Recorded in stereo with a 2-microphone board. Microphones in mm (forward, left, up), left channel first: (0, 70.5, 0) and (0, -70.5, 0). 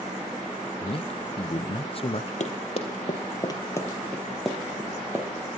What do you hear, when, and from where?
0.8 s a man speaking: 40° left (ahead or behind), 0.8 m
2.4 s running footsteps: 55° left (ahead or behind), 3.5 m; by 5.3 s 15° right (ahead or behind), 3.5 m